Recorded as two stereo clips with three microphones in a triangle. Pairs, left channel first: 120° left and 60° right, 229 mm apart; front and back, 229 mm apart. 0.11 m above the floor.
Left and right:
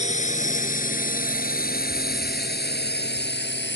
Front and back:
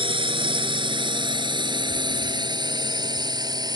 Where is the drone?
135° left; by 3.8 s 110° left.